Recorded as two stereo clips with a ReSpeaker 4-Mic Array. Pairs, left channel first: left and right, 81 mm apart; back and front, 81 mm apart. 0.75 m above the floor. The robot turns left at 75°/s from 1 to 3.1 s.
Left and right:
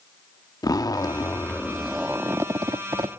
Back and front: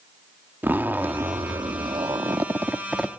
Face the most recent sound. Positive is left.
turn(degrees=-95)